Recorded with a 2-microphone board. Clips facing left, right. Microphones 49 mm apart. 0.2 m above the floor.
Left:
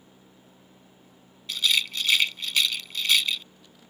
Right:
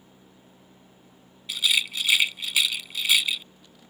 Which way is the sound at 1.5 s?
10° right (ahead or behind).